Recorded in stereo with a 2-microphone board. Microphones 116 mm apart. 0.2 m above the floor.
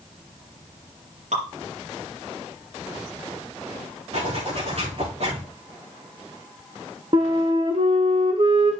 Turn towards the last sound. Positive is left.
turn(degrees=-45)  # may be behind; listen again after turning